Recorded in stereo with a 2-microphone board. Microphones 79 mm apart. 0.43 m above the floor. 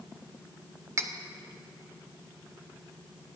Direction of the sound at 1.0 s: 35° right (ahead or behind).